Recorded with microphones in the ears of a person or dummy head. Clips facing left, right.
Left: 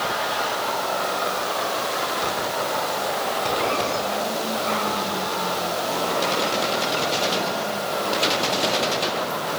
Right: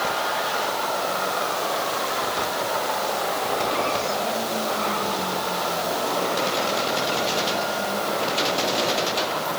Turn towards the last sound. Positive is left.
No sound to turn to.